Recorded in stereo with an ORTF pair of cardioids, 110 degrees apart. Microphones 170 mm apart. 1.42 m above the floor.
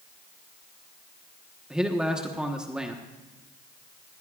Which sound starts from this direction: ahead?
A man speaking, at 1.7 s.